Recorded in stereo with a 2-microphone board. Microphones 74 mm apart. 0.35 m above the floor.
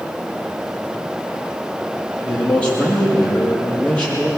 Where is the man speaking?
15° left (ahead or behind), 9.5 m.